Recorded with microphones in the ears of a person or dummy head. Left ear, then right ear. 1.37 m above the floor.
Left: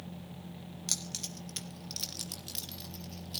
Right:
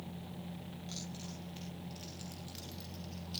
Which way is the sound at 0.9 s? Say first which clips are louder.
Left 12 dB; 75° left (ahead or behind).